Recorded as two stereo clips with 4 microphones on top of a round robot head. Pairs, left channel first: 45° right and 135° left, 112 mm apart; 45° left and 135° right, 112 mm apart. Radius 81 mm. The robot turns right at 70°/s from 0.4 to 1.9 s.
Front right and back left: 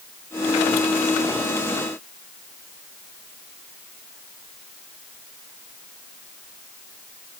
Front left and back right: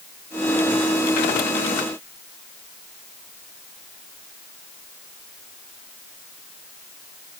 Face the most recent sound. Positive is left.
No sound to turn to.